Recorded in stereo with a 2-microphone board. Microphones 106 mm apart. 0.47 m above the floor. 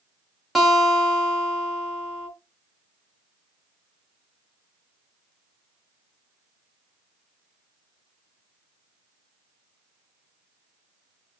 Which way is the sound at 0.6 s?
Centre (ahead or behind).